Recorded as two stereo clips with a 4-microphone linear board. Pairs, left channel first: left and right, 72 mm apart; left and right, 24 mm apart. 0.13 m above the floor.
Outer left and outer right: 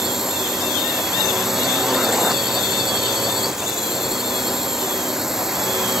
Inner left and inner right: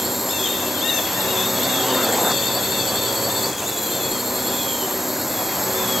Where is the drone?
5° right (ahead or behind).